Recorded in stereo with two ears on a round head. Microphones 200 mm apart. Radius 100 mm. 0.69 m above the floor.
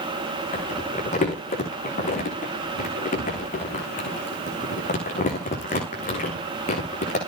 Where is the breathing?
No breathing in this recording.